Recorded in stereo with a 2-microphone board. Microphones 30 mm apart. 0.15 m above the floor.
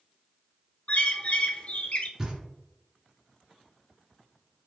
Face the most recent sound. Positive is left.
turn(degrees=-20)  # may be behind; listen again after turning